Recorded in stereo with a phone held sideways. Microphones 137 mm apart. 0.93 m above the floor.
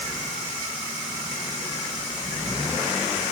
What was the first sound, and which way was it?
Only background noise.